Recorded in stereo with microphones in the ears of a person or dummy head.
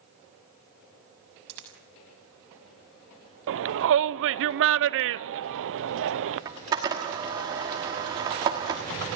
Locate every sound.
1.5 s a dropped coin: 70° right (ahead or behind), 6 m
3.5 s a shout: 70° right (ahead or behind), 0.8 m
6.5 s a camera shutter: 15° right (ahead or behind), 1.2 m